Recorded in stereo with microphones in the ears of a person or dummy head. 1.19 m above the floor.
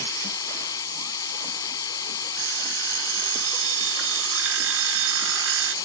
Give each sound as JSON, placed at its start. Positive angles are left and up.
{"t": 0.0, "sound": "a machine running", "side_deg": 20}
{"t": 2.4, "sound": "an alarm clock", "side_deg": -75}